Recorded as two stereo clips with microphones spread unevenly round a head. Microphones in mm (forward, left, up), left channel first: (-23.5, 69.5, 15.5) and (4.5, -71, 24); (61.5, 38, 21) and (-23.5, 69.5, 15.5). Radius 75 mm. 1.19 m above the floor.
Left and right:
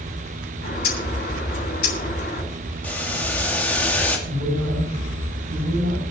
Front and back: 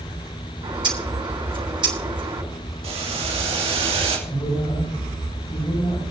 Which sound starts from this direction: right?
A man speaking, at 4.3 s.